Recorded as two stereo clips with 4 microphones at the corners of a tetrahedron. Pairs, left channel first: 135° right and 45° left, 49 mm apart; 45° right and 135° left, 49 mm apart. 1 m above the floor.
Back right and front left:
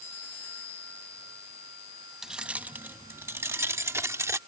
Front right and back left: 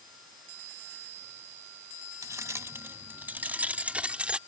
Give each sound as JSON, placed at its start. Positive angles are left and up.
{"t": 2.2, "sound": "keys jangling", "azimuth_deg": 125}